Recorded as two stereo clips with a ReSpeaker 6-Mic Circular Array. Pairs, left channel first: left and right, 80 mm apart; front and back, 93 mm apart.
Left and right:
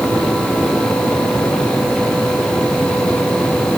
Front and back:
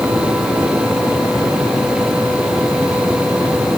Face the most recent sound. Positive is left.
No sound to turn to.